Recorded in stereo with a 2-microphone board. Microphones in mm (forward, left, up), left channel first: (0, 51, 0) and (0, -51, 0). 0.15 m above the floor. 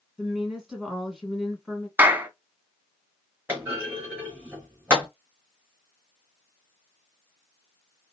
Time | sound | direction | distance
0.2 | a woman speaking | 5° right (ahead or behind) | 1.5 m
2.0 | a clap | 20° right (ahead or behind) | 0.9 m
3.5 | a clunk | 20° right (ahead or behind) | 3 m